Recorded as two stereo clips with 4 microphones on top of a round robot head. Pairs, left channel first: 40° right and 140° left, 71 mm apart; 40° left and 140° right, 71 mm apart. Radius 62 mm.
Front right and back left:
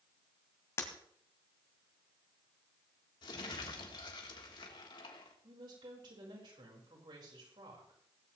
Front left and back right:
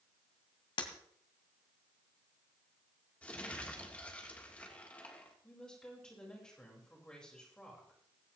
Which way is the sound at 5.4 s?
120° left.